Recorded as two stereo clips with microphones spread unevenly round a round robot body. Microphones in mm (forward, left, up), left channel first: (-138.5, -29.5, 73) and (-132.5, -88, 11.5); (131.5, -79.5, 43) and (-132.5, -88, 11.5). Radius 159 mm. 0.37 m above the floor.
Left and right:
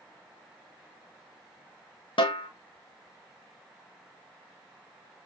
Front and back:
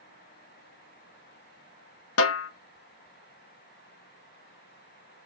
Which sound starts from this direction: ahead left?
A snare drum, at 2.2 s.